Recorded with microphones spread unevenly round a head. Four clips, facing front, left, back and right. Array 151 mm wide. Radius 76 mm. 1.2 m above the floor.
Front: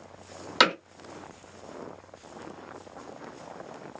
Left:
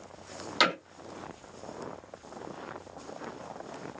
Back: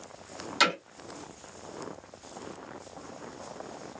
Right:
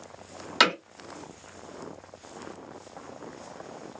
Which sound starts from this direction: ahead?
Hammering, at 0.6 s.